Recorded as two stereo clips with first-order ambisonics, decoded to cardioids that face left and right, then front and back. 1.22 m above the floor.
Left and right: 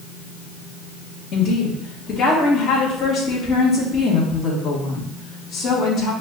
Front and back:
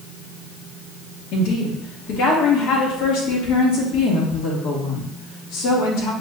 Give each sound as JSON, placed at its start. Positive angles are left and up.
{"t": 1.3, "sound": "a woman speaking", "azimuth_deg": 30, "distance_m": 1.1}